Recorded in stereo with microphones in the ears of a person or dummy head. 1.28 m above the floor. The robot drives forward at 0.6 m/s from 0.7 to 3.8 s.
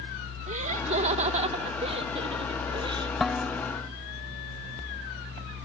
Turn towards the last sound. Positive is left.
turn(degrees=0)  # may be behind; listen again after turning